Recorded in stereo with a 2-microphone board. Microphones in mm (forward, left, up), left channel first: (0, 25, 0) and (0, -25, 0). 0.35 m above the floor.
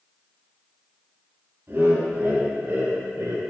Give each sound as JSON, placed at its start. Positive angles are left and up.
{"t": 1.7, "sound": "laughter", "side_deg": -40, "distance_m": 3.0}